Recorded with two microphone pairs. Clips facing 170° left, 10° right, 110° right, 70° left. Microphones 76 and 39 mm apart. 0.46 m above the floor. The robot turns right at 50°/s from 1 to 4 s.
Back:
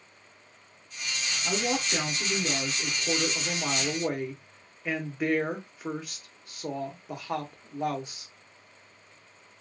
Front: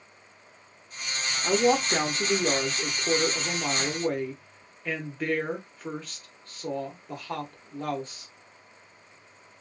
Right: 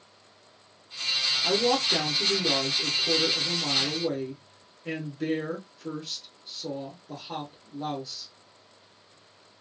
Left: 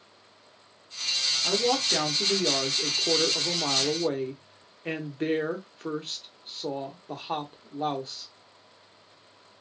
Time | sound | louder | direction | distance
1.4 | a woman speaking | front 7 dB, right 1 dB | 30° right | 1.1 m